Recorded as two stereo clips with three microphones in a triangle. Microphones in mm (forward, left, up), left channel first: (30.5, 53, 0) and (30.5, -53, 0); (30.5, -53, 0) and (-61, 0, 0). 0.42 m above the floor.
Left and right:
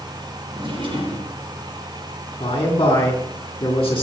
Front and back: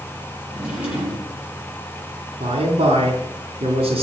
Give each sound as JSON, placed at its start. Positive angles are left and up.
{"t": 0.5, "sound": "a drawer", "azimuth_deg": -135, "distance_m": 6.5}
{"t": 2.4, "sound": "a man speaking", "azimuth_deg": 140, "distance_m": 3.5}